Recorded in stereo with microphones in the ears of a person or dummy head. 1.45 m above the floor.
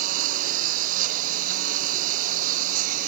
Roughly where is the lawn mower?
Right.